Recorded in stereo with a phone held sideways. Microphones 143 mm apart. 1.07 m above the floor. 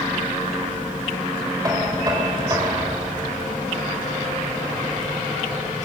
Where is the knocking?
25° right (ahead or behind), 4.5 m.